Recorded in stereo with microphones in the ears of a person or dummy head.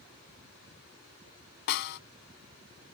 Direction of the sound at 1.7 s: 60° left (ahead or behind).